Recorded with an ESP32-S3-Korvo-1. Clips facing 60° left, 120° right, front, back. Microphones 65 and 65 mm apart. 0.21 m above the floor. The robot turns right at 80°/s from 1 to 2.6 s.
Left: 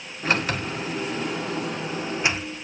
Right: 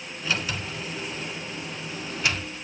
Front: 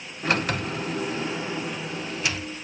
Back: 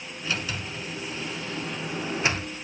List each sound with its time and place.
0.2 s a sliding door: 25° left, 0.5 m; by 2.5 s 150° left, 0.5 m